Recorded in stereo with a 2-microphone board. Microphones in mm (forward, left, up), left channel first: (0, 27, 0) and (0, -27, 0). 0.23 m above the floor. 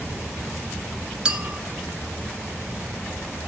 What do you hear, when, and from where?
0.0 s an insect: 35° left (ahead or behind), 5 m
1.2 s a clink: 15° right (ahead or behind), 0.6 m